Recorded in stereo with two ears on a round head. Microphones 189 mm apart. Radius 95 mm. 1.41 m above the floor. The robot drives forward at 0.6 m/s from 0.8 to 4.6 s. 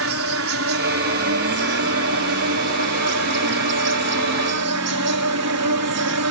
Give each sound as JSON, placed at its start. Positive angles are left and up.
{"t": 0.0, "sound": "an insect", "side_deg": -65}